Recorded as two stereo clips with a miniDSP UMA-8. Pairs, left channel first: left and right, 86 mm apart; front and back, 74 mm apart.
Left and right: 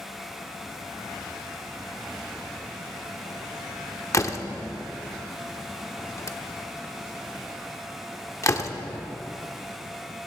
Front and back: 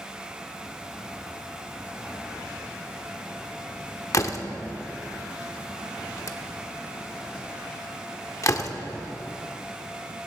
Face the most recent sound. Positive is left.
turn(degrees=40)